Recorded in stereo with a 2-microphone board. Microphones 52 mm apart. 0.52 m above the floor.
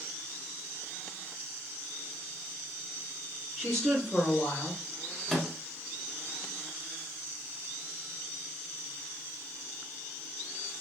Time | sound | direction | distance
3.6 | a woman speaking | centre (ahead or behind) | 0.8 m
5.3 | a microwave | 10° left (ahead or behind) | 0.6 m